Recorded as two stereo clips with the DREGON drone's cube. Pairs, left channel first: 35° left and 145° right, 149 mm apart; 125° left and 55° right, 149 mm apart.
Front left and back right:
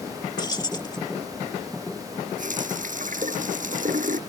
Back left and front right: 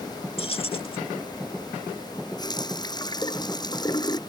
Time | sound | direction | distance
0.4 | keys jangling | 90° left | ?
2.4 | a running tap | 175° right | ?